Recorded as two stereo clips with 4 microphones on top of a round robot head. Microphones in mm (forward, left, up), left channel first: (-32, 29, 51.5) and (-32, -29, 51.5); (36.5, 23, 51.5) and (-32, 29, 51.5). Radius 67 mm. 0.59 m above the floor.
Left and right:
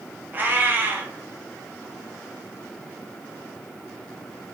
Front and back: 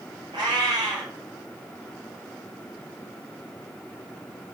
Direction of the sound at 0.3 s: 145° right.